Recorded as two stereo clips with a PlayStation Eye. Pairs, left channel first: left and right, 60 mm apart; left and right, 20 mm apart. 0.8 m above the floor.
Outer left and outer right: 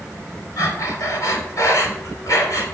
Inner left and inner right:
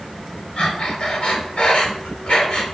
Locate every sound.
0.6 s breathing: 60° left (ahead or behind), 3 m